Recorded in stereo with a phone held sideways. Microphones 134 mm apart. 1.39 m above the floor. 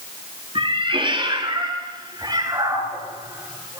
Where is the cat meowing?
40° right (ahead or behind), 8.5 m; by 3.8 s 20° right (ahead or behind), 12 m.